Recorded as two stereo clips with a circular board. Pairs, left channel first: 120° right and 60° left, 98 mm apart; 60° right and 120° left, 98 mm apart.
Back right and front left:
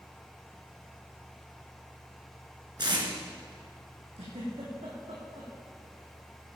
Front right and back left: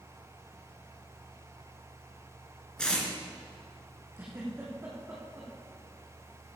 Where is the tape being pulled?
20° left, 3 m.